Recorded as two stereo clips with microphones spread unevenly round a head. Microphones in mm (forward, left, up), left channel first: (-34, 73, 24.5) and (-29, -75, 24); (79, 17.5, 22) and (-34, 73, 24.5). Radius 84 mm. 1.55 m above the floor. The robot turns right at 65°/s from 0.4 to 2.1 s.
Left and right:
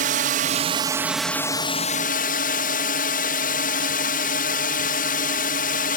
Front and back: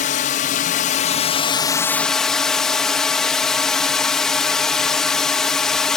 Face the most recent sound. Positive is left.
turn(degrees=60)